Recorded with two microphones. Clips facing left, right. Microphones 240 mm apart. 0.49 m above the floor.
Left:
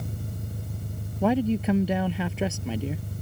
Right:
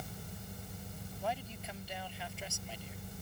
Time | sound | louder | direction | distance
0.0 | an engine running | left 10 dB | 55° left (ahead or behind) | ?
1.2 | a man speaking | left 20 dB | 85° left | ?